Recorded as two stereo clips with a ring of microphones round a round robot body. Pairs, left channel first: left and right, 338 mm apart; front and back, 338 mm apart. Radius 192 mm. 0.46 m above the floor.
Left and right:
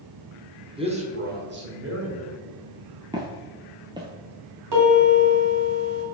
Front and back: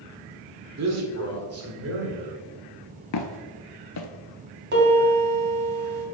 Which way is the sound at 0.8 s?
160° right.